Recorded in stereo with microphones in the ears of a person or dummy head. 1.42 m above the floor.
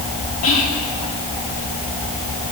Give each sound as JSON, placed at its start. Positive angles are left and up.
{"t": 0.4, "sound": "whispering", "side_deg": 40, "distance_m": 3.0}